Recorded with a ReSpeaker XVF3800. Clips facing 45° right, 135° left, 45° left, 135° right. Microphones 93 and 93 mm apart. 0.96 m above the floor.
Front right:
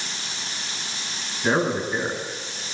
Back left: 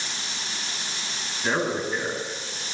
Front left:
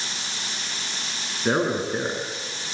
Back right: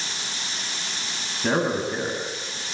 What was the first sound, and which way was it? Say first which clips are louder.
A man speaking: front right 3 dB, even; 125° right.